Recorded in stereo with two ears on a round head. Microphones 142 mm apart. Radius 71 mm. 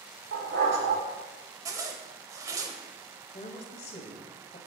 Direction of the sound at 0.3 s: 90° right.